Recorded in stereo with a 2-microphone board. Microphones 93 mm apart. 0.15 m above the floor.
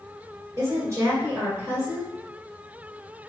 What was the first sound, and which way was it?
A woman speaking, 35° right (ahead or behind).